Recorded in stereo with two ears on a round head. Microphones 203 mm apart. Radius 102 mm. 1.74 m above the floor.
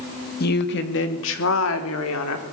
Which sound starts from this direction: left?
A woman speaking, at 0.4 s.